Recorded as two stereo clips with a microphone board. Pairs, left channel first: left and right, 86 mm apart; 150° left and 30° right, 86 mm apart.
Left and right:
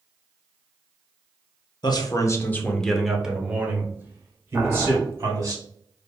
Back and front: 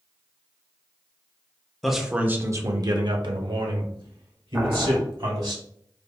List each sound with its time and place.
1.8 s a man speaking: 60° left, 0.6 m; by 5.5 s 35° right, 1.7 m
4.5 s boiling: 45° right, 0.6 m